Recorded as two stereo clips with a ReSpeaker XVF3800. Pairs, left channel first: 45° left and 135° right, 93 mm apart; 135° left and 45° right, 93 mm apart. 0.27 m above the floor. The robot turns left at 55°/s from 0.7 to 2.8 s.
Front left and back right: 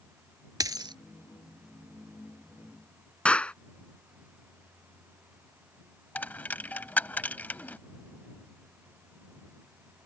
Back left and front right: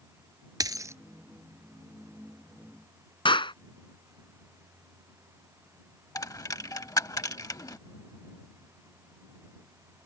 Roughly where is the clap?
Behind left.